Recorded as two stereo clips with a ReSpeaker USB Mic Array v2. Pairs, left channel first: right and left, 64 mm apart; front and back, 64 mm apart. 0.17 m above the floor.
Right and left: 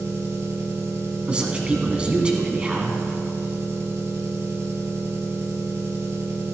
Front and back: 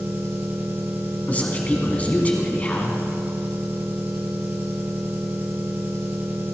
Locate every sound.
0.0 s an engine running: 125° left, 2.0 m
1.3 s a man speaking: 35° left, 1.5 m